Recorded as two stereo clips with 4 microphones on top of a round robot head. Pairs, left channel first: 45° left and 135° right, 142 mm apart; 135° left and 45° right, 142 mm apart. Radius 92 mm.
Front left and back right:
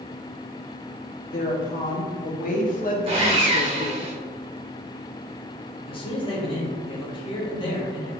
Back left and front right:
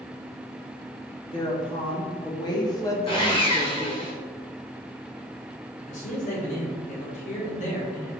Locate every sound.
1.2 s a woman speaking: 80° left, 1.9 m; by 4.1 s 25° left, 0.5 m
3.1 s sawing: 175° right, 1.7 m
5.9 s a man speaking: 100° left, 1.7 m